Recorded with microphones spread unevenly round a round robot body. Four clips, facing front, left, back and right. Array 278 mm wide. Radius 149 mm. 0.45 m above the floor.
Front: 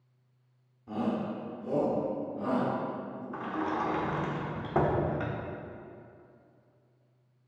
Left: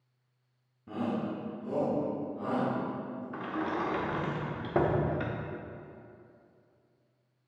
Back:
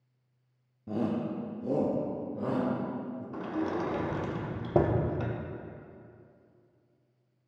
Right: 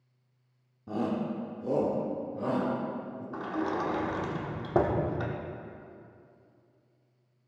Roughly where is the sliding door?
Behind right.